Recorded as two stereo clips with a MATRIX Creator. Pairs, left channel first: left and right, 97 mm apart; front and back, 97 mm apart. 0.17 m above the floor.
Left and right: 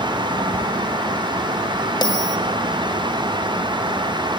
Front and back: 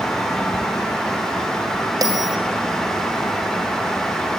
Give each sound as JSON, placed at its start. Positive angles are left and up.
{"t": 2.0, "sound": "a bell", "azimuth_deg": 130, "distance_m": 2.0}